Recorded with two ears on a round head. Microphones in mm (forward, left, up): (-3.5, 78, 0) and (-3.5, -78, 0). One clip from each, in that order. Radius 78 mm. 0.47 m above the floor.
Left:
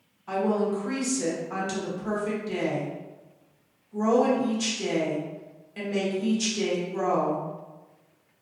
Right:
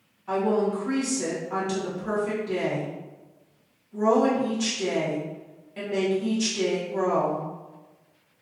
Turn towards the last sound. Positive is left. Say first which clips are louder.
# right 2 dB
turn(degrees=20)  # may be behind; listen again after turning